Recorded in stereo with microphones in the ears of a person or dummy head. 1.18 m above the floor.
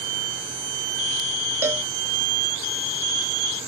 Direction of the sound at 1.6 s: 10° right (ahead or behind).